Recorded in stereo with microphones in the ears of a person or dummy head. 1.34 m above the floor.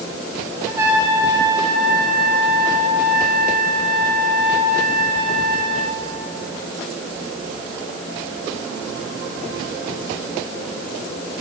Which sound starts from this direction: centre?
A trumpet, at 0.7 s.